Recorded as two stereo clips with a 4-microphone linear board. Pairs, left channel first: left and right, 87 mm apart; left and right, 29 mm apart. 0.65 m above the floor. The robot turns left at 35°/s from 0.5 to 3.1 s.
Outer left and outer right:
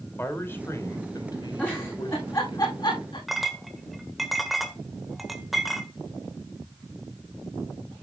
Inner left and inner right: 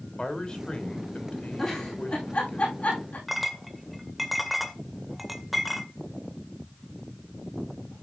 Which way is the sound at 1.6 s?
15° left (ahead or behind).